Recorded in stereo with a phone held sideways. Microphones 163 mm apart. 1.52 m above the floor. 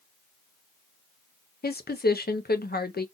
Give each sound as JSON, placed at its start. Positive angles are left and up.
{"t": 1.6, "sound": "a woman speaking", "side_deg": 70, "distance_m": 0.7}